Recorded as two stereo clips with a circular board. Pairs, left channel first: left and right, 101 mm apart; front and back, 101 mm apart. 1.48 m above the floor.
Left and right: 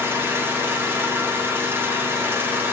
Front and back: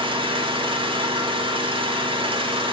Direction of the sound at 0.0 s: 155° right.